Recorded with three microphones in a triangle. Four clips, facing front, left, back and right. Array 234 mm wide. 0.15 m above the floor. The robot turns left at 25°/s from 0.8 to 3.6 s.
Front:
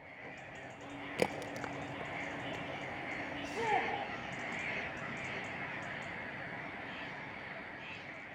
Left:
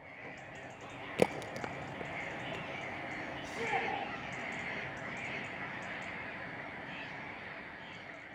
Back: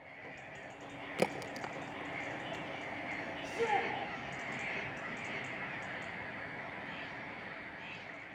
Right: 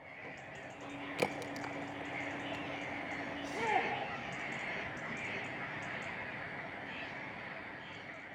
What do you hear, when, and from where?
1.2 s a crack: 95° left, 1.1 m; by 2.6 s 60° left, 1.1 m
3.4 s a shout: 30° right, 8.5 m; by 3.9 s 35° right, 8.5 m